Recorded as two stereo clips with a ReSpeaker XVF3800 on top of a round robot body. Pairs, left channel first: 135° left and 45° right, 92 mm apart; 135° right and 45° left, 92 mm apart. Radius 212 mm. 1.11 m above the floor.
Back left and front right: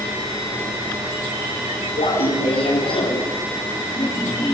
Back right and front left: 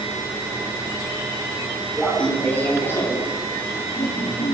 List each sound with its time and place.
2.0 s laughter: 145° left, 4.5 m; by 4.5 s 155° right, 3 m